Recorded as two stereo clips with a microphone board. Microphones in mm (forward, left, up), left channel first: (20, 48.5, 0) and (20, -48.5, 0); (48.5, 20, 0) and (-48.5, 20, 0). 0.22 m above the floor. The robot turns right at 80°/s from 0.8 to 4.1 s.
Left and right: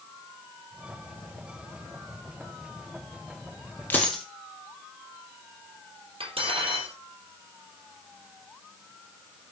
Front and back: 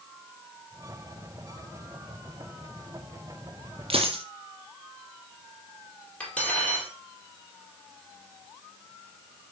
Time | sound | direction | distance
3.9 | a dropped coin | 160° left | 1.8 m
6.2 | cutlery clinking | 75° right | 4 m